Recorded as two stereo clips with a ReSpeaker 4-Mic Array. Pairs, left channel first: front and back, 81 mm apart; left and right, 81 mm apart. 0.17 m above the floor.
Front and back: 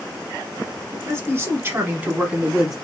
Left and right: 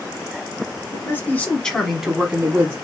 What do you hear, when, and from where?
0.9 s a man speaking: 140° left, 1.5 m; by 2.8 s 100° right, 1.2 m